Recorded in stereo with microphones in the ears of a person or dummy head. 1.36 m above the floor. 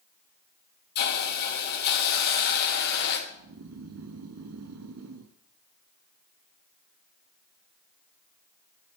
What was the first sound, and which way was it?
A hiss, 55° left (ahead or behind).